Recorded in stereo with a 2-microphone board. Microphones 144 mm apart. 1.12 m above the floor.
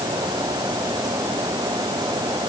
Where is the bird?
I don't hear a bird.